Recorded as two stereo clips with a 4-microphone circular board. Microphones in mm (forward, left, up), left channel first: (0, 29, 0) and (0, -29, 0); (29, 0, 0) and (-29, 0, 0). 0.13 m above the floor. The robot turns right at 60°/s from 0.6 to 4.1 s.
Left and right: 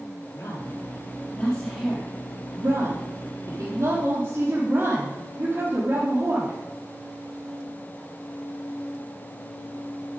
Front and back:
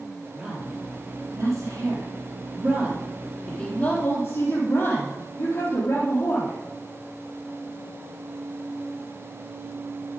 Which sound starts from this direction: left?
A woman speaking, at 0.3 s.